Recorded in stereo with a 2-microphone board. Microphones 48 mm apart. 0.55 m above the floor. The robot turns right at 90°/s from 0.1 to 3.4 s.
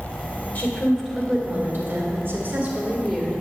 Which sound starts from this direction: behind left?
A woman speaking, at 0.6 s.